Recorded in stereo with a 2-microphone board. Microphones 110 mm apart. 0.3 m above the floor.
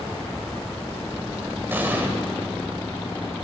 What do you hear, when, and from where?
1.7 s an explosion: 20° right (ahead or behind), 1.3 m